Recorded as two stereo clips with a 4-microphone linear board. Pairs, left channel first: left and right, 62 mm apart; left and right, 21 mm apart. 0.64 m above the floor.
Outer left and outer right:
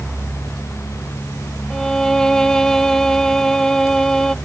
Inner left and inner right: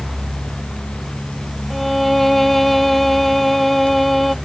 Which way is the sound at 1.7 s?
5° left (ahead or behind).